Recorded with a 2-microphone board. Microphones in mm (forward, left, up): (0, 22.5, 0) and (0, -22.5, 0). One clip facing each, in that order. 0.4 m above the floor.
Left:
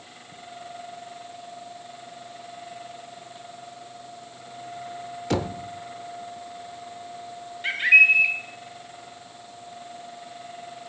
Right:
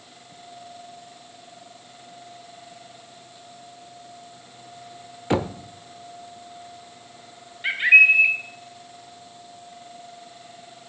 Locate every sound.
5.3 s knocking: 20° right (ahead or behind), 0.7 m
7.6 s a bird: 10° right (ahead or behind), 1.0 m